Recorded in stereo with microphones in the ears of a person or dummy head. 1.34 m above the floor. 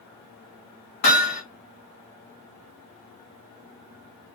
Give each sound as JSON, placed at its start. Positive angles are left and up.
{"t": 1.0, "sound": "hammering", "side_deg": 55, "distance_m": 1.9}